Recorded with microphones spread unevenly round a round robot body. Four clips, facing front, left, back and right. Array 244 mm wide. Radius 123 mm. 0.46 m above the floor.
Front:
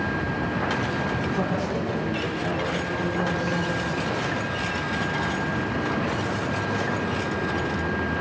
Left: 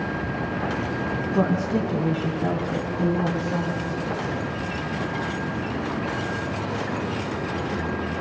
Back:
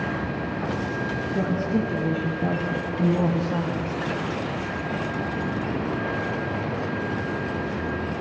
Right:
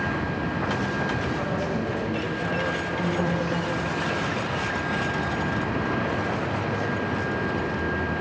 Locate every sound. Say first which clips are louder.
1.3 s a woman speaking: left 5 dB, back 2 dB; 120° left, 4 m; by 4.0 s 165° left, 4.5 m